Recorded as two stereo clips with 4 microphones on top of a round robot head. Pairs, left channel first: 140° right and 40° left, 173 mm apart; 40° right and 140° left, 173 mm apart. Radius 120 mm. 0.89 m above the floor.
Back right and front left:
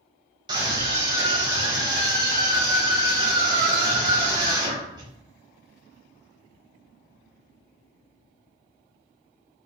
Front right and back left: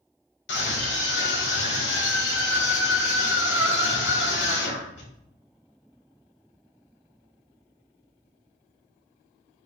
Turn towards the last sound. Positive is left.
turn(degrees=-25)